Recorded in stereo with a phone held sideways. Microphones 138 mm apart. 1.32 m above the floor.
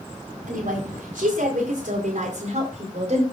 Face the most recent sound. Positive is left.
turn(degrees=-55)  # may be behind; listen again after turning